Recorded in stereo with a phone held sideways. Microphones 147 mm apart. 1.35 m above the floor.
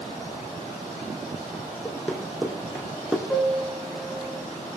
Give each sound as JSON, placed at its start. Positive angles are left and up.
{"t": 1.9, "sound": "running footsteps", "side_deg": 10, "distance_m": 3.0}
{"t": 3.3, "sound": "a piano", "side_deg": 0, "distance_m": 8.5}